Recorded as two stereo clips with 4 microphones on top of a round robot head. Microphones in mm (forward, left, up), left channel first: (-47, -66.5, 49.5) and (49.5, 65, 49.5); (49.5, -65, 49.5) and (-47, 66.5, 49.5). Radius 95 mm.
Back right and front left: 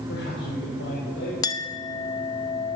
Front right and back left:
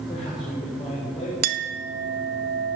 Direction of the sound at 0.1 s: 115° right.